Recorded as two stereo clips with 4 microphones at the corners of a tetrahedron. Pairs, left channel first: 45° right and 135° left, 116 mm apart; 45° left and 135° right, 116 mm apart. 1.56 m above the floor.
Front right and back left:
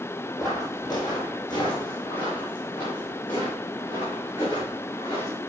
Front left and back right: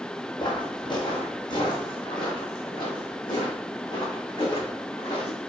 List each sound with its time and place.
0.4 s footsteps: 5° left, 3 m; by 5.4 s 5° right, 5.5 m